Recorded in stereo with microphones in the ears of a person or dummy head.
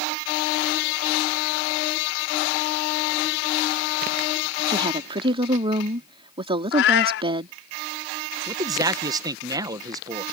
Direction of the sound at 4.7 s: 25° right (ahead or behind).